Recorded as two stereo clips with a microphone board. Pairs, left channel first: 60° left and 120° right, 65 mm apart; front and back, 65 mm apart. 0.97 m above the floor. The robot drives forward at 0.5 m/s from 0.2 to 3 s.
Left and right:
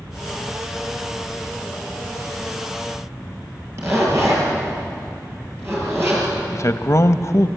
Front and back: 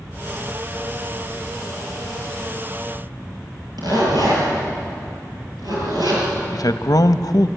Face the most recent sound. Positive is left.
turn(degrees=20)